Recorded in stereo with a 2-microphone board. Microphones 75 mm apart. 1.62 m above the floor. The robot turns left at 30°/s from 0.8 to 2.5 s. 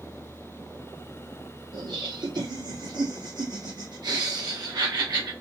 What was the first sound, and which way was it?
Laughter, 80° right.